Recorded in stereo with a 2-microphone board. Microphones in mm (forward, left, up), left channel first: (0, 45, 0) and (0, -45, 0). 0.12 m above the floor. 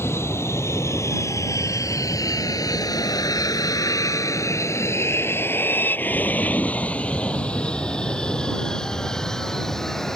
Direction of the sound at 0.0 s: 30° left (ahead or behind).